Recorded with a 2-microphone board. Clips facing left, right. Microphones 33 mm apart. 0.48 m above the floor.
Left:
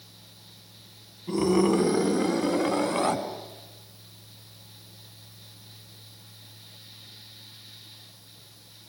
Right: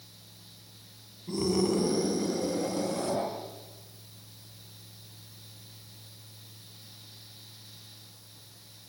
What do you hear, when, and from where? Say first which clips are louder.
1.3 s a scream: left 5 dB; 35° left (ahead or behind), 5 m; by 3.2 s 60° left (ahead or behind), 6 m